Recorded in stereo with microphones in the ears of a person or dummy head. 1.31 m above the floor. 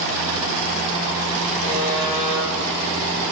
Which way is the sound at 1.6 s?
50° left (ahead or behind).